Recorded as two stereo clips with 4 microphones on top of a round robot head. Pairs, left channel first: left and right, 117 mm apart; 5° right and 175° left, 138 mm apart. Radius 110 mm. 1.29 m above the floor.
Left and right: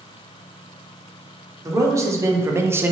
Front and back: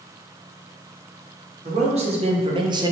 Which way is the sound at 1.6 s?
150° right.